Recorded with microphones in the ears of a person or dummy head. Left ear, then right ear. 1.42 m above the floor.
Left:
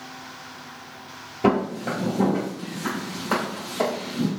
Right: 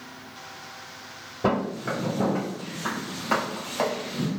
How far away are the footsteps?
About 1.8 m.